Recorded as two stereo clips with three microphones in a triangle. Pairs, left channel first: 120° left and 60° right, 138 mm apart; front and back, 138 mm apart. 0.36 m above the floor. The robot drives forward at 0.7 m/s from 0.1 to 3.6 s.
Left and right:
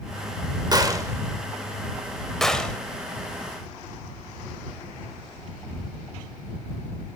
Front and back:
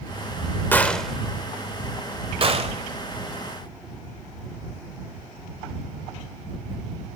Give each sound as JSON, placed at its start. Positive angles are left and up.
{"t": 0.7, "sound": "a gunshot", "azimuth_deg": -60, "distance_m": 1.1}